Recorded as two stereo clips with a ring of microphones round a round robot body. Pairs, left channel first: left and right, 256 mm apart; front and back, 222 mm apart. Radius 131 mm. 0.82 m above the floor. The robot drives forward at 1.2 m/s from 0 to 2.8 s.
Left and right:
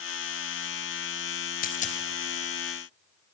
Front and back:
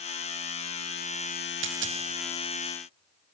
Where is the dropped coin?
150° left, 2.5 m; by 2.0 s 155° left, 3 m.